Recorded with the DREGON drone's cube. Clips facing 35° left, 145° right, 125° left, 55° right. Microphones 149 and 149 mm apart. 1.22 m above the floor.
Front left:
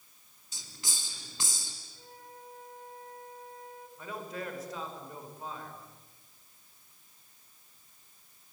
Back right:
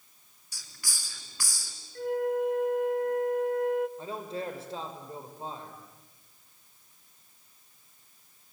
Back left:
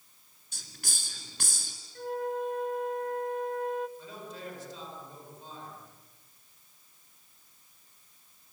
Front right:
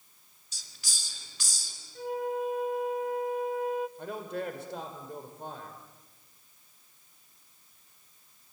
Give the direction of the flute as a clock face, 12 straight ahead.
5 o'clock.